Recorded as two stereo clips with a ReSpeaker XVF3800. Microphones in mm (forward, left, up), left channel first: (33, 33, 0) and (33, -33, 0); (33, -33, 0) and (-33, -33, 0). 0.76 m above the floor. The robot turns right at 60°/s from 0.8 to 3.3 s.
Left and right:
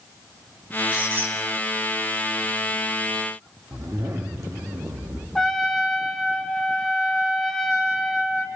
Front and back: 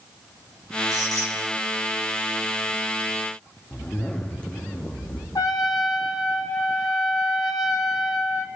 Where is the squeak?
160° right, 3 m; by 1.4 s 135° right, 3 m.